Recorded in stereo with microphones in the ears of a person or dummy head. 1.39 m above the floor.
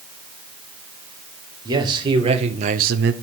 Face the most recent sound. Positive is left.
turn(degrees=-50)  # may be behind; listen again after turning